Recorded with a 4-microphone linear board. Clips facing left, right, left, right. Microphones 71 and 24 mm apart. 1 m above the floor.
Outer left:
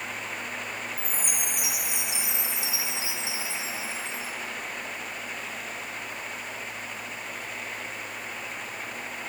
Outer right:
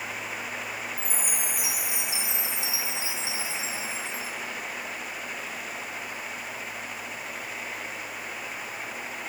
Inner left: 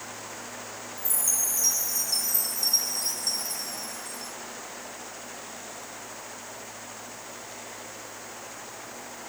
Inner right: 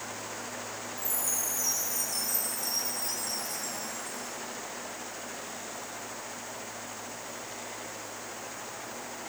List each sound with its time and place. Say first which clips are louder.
1.0 s a chime: even, inner left 5 dB; 60° left (ahead or behind), 3.5 m